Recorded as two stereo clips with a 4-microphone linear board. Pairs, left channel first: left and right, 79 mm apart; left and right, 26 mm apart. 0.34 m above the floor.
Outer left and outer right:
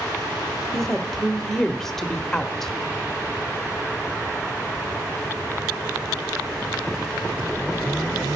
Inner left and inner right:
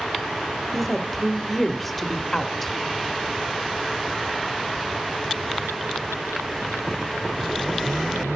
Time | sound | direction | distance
0.7 | a woman speaking | 5° left (ahead or behind) | 0.8 m